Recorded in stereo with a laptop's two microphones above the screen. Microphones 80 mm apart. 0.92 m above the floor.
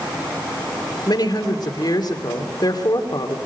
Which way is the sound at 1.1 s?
60° left (ahead or behind).